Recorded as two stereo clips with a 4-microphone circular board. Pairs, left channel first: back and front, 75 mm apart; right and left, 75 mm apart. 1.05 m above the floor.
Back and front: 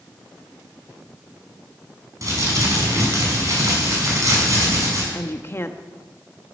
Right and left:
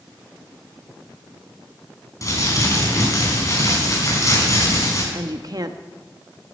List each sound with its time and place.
2.2 s crumpling: 45° right, 5.5 m
5.1 s a woman speaking: 125° left, 1.2 m